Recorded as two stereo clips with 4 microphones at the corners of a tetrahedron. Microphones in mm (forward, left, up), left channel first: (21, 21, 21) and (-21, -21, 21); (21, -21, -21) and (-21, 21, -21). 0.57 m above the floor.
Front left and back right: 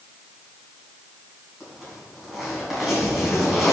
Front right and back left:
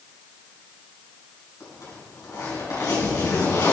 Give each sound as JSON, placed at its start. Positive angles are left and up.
{"t": 1.6, "sound": "a zipper", "azimuth_deg": -50, "distance_m": 2.5}